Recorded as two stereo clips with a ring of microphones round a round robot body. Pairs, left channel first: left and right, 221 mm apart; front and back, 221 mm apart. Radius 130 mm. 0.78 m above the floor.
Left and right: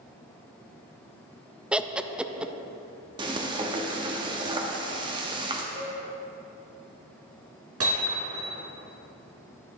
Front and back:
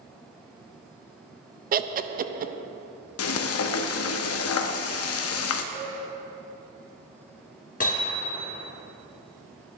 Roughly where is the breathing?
I don't hear breathing.